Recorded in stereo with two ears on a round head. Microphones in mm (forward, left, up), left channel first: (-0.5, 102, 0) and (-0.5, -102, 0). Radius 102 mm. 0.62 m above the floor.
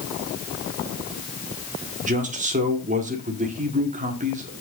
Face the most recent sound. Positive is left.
turn(degrees=-35)  # may be behind; listen again after turning